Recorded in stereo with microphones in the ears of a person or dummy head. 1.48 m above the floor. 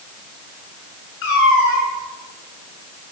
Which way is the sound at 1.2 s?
70° left (ahead or behind).